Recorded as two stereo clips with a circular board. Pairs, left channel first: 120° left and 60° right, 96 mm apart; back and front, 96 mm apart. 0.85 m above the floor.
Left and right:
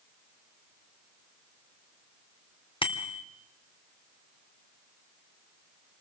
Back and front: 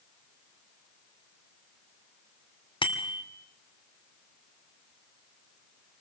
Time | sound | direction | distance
2.8 | a bicycle bell | 145° left | 2 m